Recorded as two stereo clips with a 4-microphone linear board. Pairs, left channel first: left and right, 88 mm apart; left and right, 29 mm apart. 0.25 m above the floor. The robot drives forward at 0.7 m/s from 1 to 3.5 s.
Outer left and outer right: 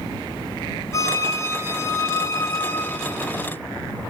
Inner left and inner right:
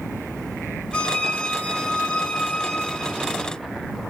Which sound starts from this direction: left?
A violin, at 0.9 s.